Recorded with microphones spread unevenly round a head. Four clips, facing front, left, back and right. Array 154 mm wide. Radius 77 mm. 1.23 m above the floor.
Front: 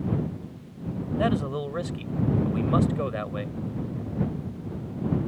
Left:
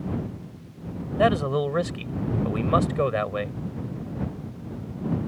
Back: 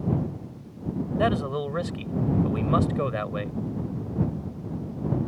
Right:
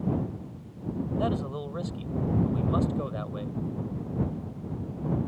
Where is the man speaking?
95° left.